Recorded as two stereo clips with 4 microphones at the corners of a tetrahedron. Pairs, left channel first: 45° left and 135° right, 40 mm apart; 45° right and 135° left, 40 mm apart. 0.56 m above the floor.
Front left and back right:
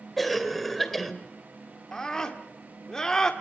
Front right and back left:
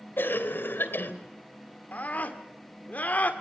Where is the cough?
40° right, 2.5 m.